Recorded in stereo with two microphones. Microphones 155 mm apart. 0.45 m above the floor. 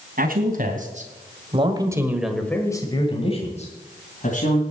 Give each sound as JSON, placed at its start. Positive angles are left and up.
{"t": 0.2, "sound": "a man speaking", "side_deg": -65, "distance_m": 3.0}